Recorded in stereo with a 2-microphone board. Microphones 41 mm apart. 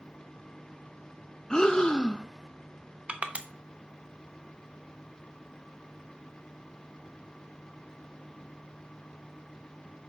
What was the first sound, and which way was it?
Breathing, 20° left (ahead or behind).